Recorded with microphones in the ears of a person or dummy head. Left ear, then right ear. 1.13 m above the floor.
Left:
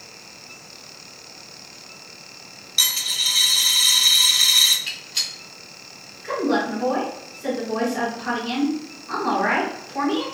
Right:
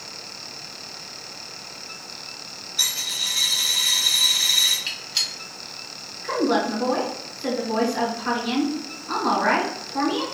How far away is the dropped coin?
About 1.1 m.